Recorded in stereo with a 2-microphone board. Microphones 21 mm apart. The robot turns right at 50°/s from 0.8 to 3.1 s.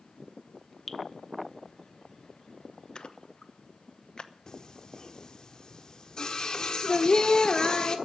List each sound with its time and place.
0.9 s dripping: 5° left (ahead or behind), 0.9 m; by 1.0 s centre (ahead or behind), 0.9 m
3.0 s a splash: 45° left (ahead or behind), 0.8 m
4.5 s singing: 40° left (ahead or behind), 1.4 m